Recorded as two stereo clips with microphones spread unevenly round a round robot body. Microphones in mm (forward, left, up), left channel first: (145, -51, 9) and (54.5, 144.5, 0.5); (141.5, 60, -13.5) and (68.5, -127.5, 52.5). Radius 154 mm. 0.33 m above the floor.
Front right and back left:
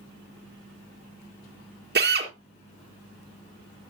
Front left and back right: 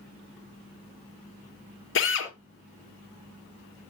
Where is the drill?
75° left, 3 m.